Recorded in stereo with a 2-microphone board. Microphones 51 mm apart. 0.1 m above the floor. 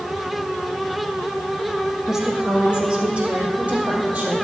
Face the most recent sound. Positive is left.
turn(degrees=-30)  # may be behind; listen again after turning